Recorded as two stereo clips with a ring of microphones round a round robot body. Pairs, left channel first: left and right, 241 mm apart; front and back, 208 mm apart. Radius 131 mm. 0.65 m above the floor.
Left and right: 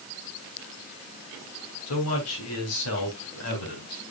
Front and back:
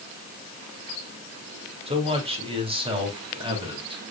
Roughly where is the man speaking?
Behind left.